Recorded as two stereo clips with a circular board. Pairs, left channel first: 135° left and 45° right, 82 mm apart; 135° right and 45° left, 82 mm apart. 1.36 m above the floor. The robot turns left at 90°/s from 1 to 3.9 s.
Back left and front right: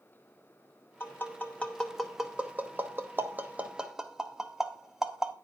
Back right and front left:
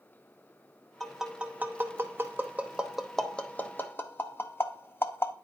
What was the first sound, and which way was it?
Tapping, 140° left.